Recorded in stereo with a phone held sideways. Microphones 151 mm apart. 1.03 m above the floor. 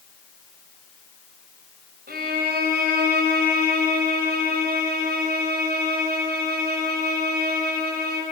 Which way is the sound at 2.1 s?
85° right.